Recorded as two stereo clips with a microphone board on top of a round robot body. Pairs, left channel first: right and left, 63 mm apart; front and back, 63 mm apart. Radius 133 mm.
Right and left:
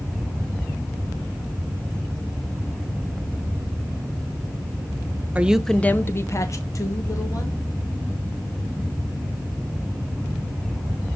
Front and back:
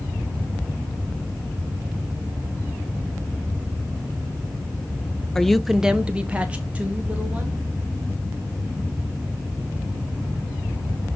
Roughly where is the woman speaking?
Left.